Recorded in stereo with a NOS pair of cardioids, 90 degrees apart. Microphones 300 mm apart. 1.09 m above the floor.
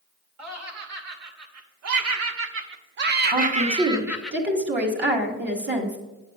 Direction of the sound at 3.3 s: 35° right.